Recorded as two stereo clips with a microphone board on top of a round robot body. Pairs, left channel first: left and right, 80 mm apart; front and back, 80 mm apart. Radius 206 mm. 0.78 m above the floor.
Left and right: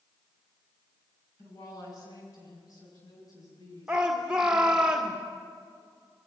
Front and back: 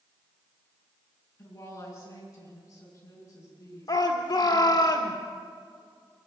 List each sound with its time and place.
1.4 s a woman speaking: 50° left, 7.5 m; by 4.9 s 45° left, 11.5 m
3.9 s a shout: 15° right, 1.6 m